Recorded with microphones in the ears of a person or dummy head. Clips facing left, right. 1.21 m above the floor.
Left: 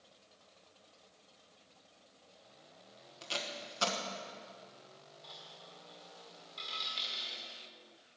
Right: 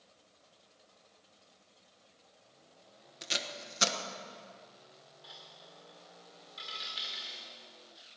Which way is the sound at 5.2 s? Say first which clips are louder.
Even; 10° right (ahead or behind).